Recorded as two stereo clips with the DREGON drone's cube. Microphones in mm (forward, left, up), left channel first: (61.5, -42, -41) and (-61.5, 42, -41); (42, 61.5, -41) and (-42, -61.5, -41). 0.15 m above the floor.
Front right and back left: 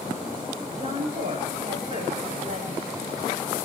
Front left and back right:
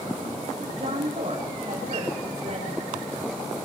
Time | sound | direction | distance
0.8 | a woman speaking | 165° right | 8.5 m